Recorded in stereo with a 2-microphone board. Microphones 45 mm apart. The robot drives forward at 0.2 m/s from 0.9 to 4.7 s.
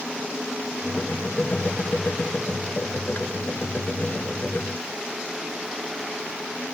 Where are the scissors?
No scissors in this recording.